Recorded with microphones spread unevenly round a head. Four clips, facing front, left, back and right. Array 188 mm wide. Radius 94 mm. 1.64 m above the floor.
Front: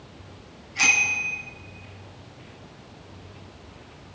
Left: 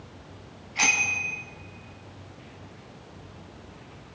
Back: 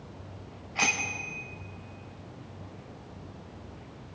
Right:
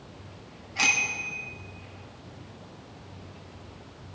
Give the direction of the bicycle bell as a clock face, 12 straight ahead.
6 o'clock.